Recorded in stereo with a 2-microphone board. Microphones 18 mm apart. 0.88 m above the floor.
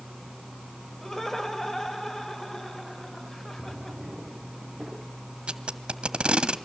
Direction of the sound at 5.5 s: 75° right (ahead or behind).